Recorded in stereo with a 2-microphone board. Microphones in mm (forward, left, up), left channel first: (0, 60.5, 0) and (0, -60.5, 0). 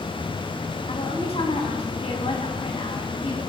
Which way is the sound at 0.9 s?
55° left (ahead or behind).